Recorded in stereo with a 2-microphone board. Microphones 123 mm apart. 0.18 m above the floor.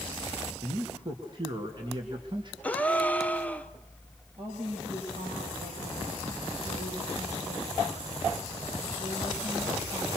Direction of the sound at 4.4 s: 50° right (ahead or behind).